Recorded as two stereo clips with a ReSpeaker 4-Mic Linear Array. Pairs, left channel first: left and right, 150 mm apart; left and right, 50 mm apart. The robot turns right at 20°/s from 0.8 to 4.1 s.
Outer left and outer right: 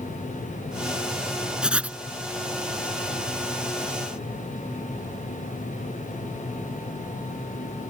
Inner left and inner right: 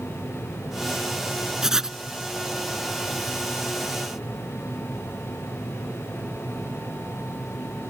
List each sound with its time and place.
1.6 s writing: 5° right (ahead or behind); by 2.0 s 10° right (ahead or behind)